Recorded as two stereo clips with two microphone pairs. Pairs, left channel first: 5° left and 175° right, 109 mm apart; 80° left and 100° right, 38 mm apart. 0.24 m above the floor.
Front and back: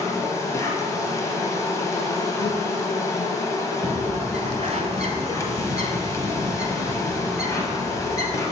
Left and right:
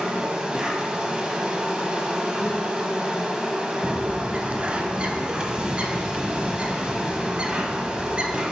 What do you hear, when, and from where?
0.0 s an insect: 40° right, 1.0 m
3.8 s a bird: 155° right, 0.7 m